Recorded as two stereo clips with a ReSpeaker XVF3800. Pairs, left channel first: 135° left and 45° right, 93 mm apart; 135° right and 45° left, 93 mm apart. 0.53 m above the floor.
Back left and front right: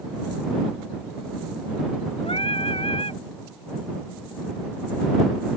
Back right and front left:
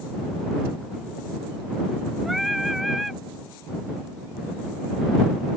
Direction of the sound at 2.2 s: 135° left.